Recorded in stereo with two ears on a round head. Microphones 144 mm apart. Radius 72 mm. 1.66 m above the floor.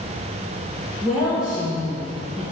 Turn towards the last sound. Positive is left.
turn(degrees=-5)  # may be behind; listen again after turning